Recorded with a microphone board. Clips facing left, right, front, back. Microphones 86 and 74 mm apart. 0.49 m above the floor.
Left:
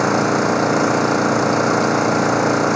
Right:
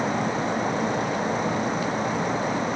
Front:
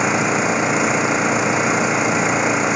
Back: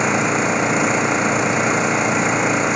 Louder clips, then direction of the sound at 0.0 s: Left 9 dB, even; 90° left.